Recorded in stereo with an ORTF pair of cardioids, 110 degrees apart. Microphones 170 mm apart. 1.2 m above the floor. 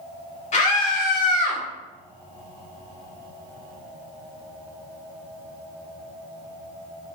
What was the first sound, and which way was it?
A scream, 45° left.